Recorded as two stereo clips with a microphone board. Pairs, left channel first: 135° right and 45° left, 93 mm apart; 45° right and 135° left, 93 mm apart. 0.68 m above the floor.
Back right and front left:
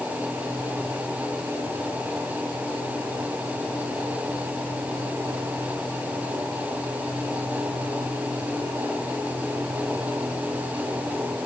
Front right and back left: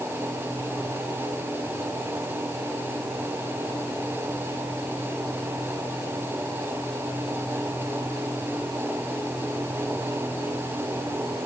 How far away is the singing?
I don't hear singing.